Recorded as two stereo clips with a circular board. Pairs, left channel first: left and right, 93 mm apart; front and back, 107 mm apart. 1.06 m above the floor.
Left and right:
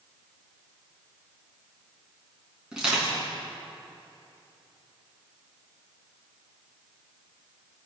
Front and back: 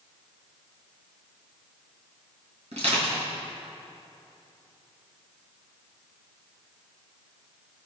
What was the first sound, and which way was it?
Crushing, 175° right.